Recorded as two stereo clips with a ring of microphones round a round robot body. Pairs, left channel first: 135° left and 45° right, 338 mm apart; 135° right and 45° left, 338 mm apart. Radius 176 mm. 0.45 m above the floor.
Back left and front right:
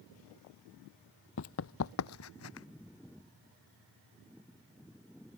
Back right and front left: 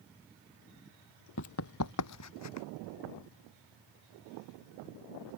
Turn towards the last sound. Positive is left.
turn(degrees=-175)